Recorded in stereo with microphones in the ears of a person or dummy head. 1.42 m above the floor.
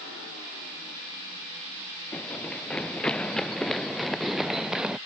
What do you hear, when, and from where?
2.1 s running footsteps: 5° left (ahead or behind); by 5.0 s 5° right (ahead or behind)